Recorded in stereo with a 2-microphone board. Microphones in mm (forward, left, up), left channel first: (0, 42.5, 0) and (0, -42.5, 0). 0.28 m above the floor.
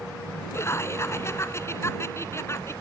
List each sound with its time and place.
0.5 s laughter: 35° left (ahead or behind)